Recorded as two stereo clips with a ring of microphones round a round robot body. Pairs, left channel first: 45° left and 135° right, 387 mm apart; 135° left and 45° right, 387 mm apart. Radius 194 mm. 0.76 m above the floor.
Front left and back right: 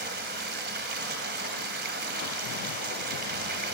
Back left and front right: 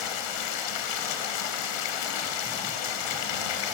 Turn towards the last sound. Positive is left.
turn(degrees=160)